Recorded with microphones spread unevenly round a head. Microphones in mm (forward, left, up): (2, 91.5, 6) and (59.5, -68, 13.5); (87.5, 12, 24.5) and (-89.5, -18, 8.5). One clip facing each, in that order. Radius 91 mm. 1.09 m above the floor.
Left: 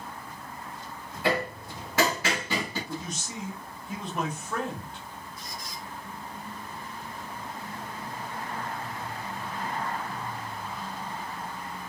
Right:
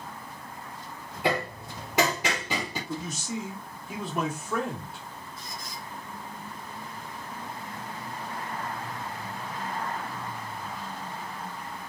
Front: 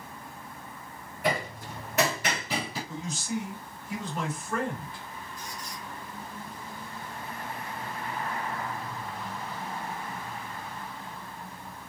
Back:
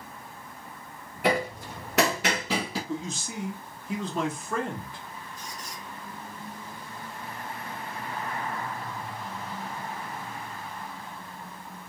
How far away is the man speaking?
About 2.0 m.